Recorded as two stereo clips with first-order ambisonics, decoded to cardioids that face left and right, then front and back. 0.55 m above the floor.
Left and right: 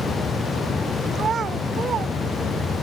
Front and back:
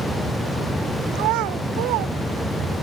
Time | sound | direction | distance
1.1 | a child speaking | 155° right | ?